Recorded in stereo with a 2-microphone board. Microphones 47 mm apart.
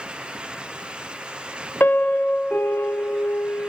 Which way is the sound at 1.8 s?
50° left (ahead or behind).